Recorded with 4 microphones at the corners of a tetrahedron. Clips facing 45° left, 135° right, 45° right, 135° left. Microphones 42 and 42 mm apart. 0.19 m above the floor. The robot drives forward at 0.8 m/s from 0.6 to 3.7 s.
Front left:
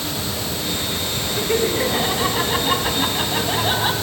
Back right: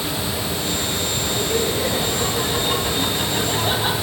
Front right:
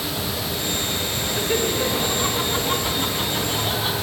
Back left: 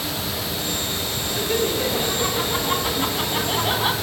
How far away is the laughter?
About 2.5 m.